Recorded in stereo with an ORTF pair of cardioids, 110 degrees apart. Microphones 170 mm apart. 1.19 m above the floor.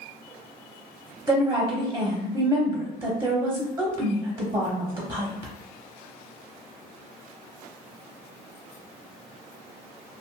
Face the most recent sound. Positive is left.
turn(degrees=-15)